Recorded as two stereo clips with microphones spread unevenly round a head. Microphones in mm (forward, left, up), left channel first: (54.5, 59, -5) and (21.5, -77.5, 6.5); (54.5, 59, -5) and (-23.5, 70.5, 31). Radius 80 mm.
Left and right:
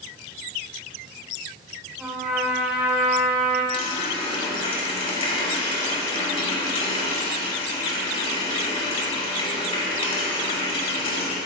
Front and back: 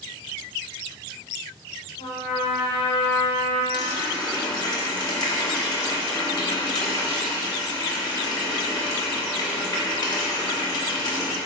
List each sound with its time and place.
2.0 s a trumpet: 20° right, 2.5 m
3.7 s a running tap: 30° left, 4.5 m